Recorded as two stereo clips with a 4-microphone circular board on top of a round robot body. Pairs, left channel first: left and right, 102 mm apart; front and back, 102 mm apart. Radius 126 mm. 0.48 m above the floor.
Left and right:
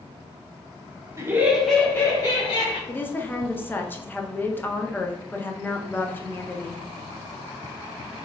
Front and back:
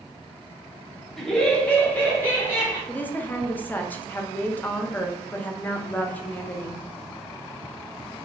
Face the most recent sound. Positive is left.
turn(degrees=50)